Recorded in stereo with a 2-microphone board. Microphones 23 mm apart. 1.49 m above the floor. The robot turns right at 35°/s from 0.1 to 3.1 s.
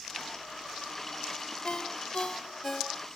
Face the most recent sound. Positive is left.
turn(degrees=-175)